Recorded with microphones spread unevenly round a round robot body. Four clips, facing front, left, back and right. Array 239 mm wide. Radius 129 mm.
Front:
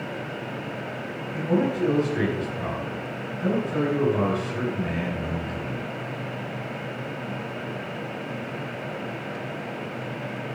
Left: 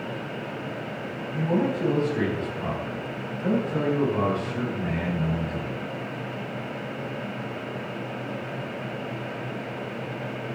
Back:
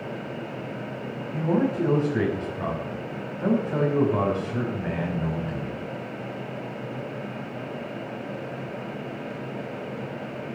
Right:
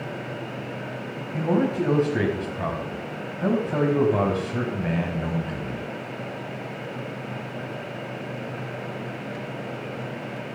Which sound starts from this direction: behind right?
A man speaking, at 1.3 s.